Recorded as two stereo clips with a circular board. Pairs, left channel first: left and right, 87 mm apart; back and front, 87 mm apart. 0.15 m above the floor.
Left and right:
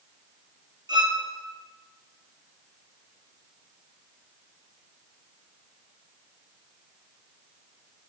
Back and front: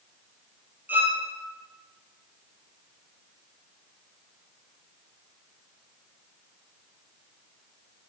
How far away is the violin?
About 0.5 m.